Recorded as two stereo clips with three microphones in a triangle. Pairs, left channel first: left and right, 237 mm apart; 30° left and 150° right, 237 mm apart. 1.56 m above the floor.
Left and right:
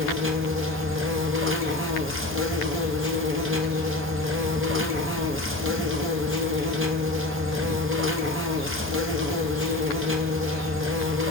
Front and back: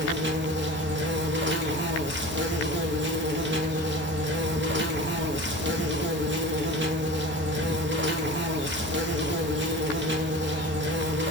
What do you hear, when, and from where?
0.0 s an insect: 115° right, 0.8 m